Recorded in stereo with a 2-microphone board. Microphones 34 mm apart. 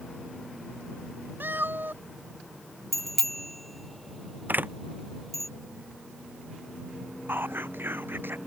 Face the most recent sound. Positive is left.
turn(degrees=-75)  # may be behind; listen again after turning